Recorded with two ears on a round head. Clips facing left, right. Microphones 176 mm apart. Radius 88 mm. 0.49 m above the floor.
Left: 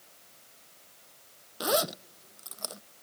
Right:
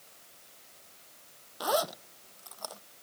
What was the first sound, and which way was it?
A zipper, 30° left (ahead or behind).